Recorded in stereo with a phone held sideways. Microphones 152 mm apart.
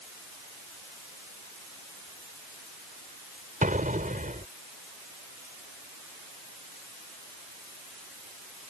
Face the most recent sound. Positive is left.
turn(degrees=-60)  # may be behind; listen again after turning